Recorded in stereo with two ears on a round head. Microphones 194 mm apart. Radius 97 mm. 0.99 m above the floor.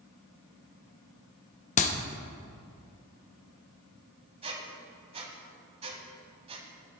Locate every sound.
1.8 s a clap: 35° left (ahead or behind), 0.7 m
4.4 s a squeak: 25° right (ahead or behind), 1.3 m